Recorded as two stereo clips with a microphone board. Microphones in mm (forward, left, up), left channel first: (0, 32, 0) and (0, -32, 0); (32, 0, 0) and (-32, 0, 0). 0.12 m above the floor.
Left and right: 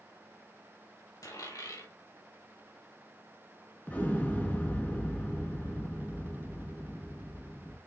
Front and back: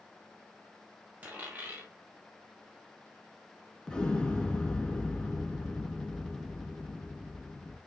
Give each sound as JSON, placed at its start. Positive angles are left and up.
{"t": 1.2, "sound": "a dropped coin", "azimuth_deg": 110, "distance_m": 4.5}
{"t": 3.9, "sound": "an explosion", "azimuth_deg": 65, "distance_m": 1.9}